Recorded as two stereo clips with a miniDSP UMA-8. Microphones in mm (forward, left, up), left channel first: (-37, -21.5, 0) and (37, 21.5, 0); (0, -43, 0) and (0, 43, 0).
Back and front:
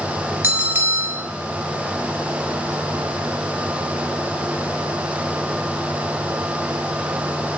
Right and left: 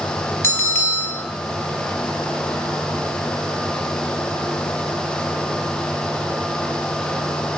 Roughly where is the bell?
Ahead right.